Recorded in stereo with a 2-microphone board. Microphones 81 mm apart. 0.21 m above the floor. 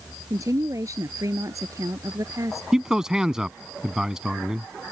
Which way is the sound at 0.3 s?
40° right (ahead or behind).